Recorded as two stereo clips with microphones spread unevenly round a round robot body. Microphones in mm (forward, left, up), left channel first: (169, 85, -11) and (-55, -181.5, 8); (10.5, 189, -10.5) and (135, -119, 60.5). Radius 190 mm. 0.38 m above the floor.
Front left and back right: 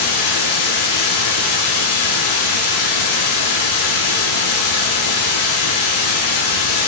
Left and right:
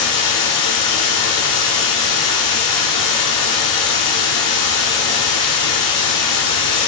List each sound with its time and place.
0.0 s running water: 90° left, 3 m